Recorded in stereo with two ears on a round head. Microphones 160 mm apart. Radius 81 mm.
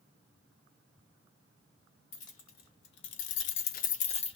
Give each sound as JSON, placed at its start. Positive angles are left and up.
{"t": 2.1, "sound": "keys jangling", "side_deg": 40, "distance_m": 1.1}